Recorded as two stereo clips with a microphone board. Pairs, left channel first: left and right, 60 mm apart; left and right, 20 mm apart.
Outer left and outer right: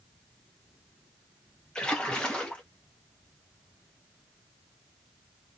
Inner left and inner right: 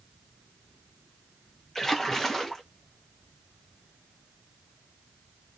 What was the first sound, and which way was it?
A splash, 15° left (ahead or behind).